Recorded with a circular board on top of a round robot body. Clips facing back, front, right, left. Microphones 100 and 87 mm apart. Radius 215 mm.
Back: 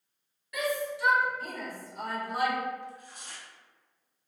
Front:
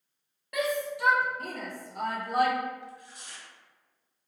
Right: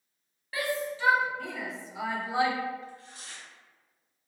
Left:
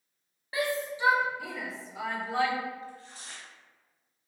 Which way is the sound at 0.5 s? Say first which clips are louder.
Front 2 dB, left 1 dB; 25° left.